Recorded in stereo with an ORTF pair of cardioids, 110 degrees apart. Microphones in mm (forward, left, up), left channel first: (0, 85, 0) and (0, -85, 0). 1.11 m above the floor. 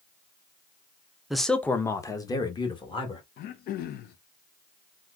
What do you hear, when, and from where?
1.3 s a man speaking: straight ahead, 0.6 m; by 3.2 s 30° left, 1.4 m
3.4 s throat clearing: 65° left, 0.6 m